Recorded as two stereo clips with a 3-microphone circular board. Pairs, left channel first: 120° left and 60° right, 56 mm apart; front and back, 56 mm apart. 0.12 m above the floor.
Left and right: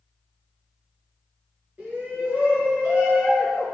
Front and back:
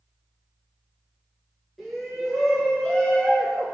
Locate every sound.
1.8 s a shout: 90° right, 1.4 m; by 3.8 s 25° left, 1.3 m